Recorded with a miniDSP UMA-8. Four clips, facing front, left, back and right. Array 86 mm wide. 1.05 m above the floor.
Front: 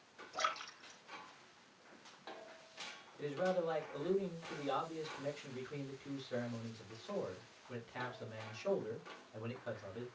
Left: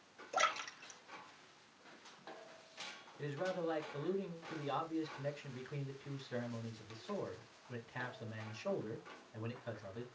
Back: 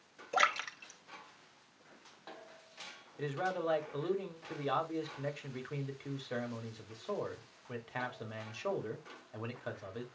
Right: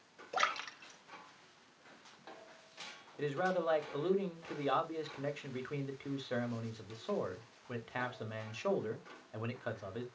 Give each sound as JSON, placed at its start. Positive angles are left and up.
{"t": 0.3, "sound": "a splash", "azimuth_deg": -165, "distance_m": 2.5}
{"t": 3.2, "sound": "a man speaking", "azimuth_deg": -120, "distance_m": 3.5}